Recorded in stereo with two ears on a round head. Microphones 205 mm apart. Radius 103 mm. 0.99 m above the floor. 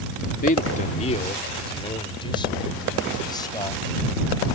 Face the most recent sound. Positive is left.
turn(degrees=15)  # may be behind; listen again after turning